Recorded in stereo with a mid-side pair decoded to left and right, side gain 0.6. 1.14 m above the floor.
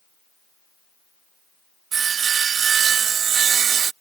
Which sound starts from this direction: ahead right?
Sawing, at 1.9 s.